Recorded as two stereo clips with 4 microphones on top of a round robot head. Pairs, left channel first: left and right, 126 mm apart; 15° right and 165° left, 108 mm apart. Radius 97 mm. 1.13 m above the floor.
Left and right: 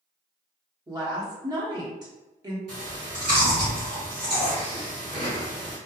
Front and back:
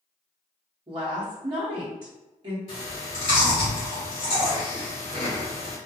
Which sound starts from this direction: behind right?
A woman speaking, at 0.9 s.